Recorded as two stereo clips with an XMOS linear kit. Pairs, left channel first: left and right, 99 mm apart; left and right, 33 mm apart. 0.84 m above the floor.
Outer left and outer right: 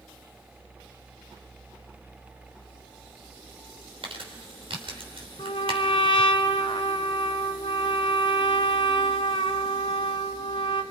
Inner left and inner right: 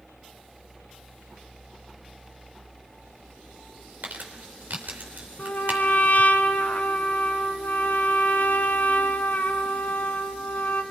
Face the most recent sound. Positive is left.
turn(degrees=70)  # may be behind; listen again after turning